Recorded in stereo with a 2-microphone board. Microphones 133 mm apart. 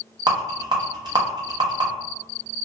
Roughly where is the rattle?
Right.